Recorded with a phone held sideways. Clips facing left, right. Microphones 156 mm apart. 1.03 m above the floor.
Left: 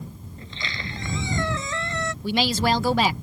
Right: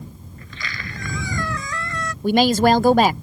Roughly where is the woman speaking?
Right.